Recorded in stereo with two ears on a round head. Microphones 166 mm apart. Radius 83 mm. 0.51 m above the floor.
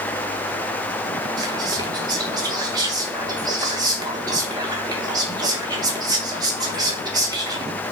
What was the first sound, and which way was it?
Whispering, 20° right (ahead or behind).